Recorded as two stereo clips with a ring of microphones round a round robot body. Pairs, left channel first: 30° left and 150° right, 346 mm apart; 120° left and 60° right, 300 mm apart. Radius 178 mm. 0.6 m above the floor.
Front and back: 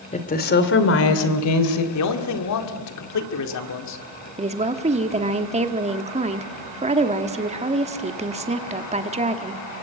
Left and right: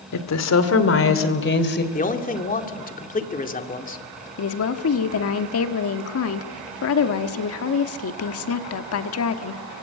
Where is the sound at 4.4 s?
140° left, 1.2 m.